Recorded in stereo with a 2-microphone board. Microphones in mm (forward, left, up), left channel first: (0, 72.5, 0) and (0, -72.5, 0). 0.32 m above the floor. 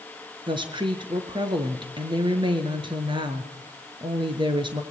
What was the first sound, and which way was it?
A woman speaking, 35° right (ahead or behind).